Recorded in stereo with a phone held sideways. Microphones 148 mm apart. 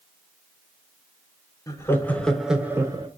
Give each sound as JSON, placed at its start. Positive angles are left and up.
{"t": 1.7, "sound": "laughter", "side_deg": 20, "distance_m": 0.9}